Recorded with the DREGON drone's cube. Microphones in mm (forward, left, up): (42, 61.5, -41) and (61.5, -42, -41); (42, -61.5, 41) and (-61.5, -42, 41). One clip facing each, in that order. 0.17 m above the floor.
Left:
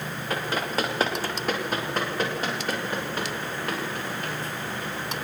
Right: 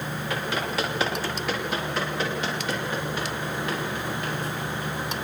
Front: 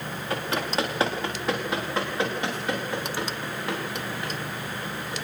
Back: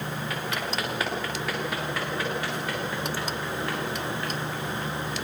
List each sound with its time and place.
0.3 s running footsteps: 50° left, 10 m; by 5.2 s 60° left, 17 m